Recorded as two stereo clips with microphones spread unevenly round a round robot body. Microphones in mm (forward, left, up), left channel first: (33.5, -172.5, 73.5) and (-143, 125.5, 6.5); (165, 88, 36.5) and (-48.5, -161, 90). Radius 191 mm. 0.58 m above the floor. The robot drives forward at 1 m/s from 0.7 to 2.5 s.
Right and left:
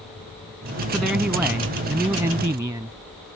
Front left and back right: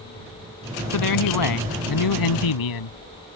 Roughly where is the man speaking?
Ahead left.